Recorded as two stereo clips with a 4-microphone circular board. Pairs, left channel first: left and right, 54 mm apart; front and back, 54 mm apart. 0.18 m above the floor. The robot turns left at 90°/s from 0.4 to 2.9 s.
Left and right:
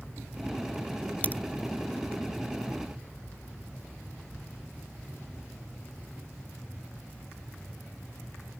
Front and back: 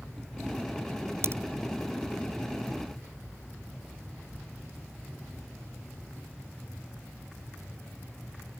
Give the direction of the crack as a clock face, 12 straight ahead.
7 o'clock.